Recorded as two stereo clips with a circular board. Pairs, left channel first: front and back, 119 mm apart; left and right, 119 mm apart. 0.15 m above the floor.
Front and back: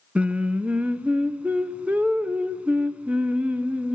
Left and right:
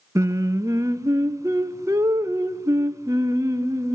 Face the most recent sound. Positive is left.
turn(degrees=-110)